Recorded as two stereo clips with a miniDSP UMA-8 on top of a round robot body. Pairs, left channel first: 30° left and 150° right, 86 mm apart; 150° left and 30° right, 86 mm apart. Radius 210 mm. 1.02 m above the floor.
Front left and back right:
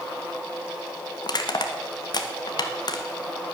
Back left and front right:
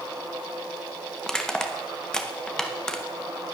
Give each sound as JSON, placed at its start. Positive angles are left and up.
{"t": 1.2, "sound": "crushing", "azimuth_deg": 70, "distance_m": 1.4}